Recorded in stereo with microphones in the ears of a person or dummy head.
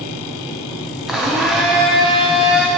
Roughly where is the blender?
Centre.